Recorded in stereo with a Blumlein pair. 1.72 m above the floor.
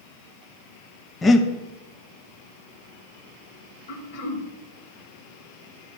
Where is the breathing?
15° left, 0.6 m.